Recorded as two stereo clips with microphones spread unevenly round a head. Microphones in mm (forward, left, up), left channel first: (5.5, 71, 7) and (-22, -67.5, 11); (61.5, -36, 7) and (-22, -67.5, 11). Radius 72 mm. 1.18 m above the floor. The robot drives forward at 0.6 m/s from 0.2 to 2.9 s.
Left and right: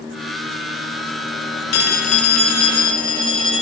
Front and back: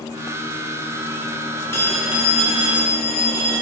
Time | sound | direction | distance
1.7 | a phone ringing | 95° left | 0.6 m